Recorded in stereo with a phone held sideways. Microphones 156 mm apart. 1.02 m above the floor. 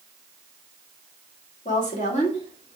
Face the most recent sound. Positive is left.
turn(degrees=35)  # may be behind; listen again after turning